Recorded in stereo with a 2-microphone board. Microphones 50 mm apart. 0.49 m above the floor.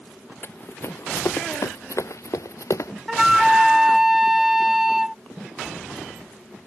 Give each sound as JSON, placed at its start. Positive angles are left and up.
{"t": 0.4, "sound": "running footsteps", "side_deg": 50}
{"t": 3.1, "sound": "a flute", "side_deg": -5}